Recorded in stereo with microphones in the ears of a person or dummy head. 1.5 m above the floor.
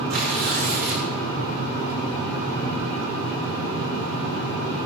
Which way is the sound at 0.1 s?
60° right (ahead or behind).